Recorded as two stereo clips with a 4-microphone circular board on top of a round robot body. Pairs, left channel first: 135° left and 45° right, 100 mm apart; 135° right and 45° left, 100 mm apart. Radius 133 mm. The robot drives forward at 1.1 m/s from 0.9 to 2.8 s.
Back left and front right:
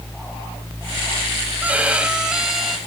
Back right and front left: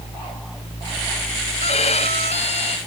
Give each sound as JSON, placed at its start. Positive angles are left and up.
{"t": 1.6, "sound": "a violin", "azimuth_deg": -120}